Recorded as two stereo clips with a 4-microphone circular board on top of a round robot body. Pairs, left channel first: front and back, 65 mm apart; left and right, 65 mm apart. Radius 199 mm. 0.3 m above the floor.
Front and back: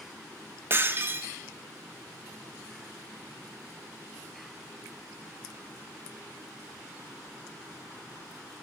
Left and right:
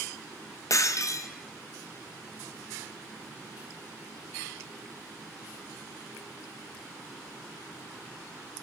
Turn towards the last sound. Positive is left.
turn(degrees=125)